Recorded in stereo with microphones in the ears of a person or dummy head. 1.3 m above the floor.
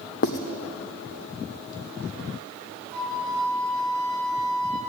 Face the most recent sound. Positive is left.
turn(degrees=5)  # may be behind; listen again after turning